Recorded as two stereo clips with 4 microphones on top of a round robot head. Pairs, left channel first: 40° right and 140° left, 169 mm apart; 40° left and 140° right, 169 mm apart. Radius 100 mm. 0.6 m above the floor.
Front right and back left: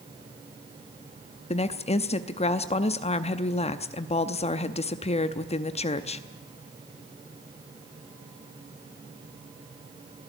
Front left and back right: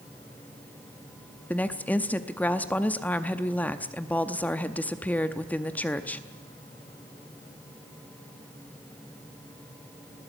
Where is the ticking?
I don't hear ticking.